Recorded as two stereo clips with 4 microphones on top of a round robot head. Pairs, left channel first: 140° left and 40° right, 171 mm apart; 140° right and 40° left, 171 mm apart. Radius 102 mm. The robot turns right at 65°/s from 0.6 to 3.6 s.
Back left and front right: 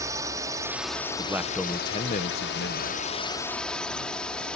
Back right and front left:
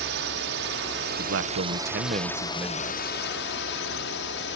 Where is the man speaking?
25° left; by 3.0 s 145° left.